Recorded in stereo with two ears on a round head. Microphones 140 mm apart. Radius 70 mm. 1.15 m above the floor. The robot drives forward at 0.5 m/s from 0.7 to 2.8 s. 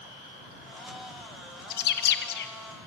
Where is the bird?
65° left (ahead or behind), 1.0 m; by 2.5 s 70° left (ahead or behind), 1.0 m.